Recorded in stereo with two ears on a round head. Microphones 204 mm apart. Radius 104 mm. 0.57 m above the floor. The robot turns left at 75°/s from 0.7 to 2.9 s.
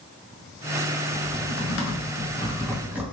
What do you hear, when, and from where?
1.1 s typing on a keyboard: 45° left (ahead or behind), 0.8 m; by 3.0 s 10° right (ahead or behind), 0.8 m